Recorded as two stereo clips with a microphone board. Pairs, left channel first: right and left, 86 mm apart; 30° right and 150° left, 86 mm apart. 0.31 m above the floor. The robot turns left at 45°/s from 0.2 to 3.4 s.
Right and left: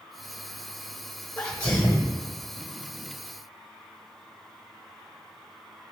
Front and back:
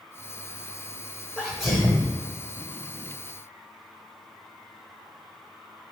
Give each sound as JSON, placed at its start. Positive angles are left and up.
{"t": 1.4, "sound": "a sneeze", "azimuth_deg": -115, "distance_m": 1.0}